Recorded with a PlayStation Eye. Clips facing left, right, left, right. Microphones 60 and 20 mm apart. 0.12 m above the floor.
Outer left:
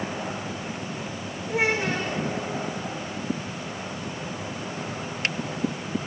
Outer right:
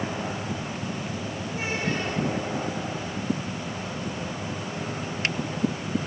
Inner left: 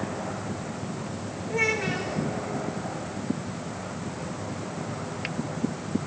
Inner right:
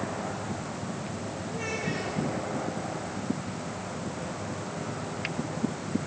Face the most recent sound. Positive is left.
turn(degrees=80)